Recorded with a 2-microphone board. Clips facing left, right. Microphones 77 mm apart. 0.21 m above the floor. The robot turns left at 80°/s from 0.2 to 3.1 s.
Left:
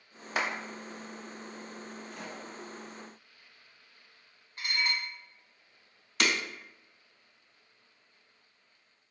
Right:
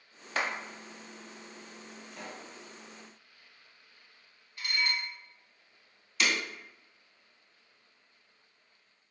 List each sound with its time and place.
0.3 s a clap: 15° left (ahead or behind), 0.8 m
2.1 s a pop: 175° right, 1.5 m; by 2.5 s 150° left, 1.5 m
4.6 s dishes clattering: 40° left (ahead or behind), 0.9 m
6.2 s breaking glass: 60° left (ahead or behind), 0.6 m